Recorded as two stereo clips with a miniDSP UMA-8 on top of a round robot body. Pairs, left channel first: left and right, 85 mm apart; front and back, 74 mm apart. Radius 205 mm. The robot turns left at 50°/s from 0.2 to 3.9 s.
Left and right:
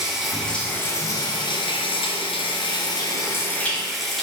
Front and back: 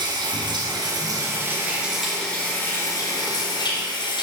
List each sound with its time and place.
0.0 s running water: 175° right, 3.5 m; by 4.2 s straight ahead, 3.5 m